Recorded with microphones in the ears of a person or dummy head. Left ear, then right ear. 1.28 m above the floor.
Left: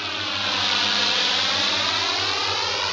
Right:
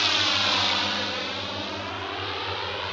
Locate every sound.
0.0 s a drone: 20° right (ahead or behind); by 2.9 s 80° left